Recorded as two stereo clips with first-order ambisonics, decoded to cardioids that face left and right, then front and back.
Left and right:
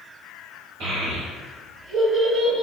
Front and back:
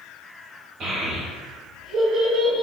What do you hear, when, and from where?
0.8 s a child speaking: 115° right, 1.5 m